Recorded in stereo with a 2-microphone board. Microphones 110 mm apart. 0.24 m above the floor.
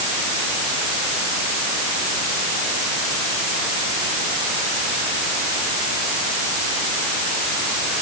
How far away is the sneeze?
I don't hear a sneeze.